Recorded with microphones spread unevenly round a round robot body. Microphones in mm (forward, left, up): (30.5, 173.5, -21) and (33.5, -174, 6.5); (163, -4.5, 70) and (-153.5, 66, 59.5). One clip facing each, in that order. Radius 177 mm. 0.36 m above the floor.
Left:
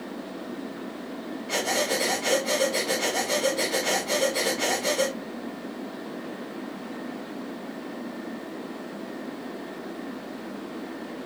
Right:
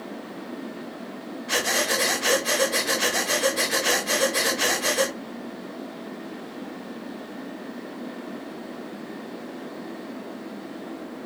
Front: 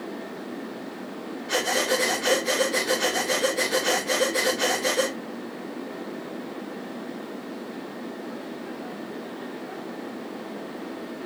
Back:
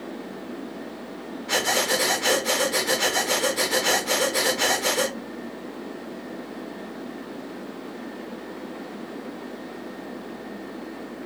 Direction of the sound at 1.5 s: 130° right.